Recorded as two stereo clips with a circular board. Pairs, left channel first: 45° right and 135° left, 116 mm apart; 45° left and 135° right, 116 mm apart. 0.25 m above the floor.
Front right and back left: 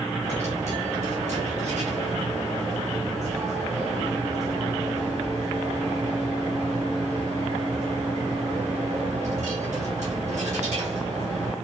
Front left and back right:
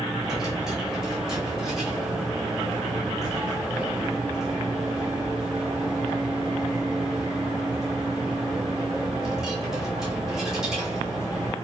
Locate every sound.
0.2 s a dropped coin: 140° left, 2.5 m